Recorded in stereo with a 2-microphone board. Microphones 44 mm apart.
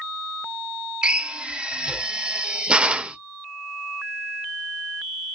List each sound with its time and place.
1.0 s a drill: 20° right (ahead or behind), 0.7 m